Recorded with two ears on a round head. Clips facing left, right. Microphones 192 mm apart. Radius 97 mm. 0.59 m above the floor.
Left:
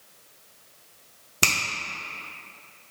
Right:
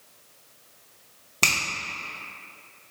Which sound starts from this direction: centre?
A finger snap, at 1.4 s.